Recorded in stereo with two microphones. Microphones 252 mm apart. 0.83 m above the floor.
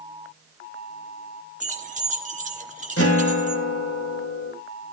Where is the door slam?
No door slam in this recording.